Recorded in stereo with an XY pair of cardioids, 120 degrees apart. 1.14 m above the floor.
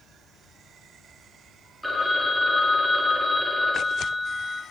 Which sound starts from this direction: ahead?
A phone ringing, at 1.8 s.